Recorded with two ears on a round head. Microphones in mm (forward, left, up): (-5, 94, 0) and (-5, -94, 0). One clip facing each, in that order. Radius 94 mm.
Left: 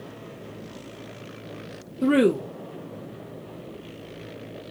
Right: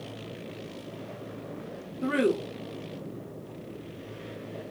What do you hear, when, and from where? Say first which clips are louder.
2.0 s a woman speaking: left 6 dB; 50° left (ahead or behind), 0.7 m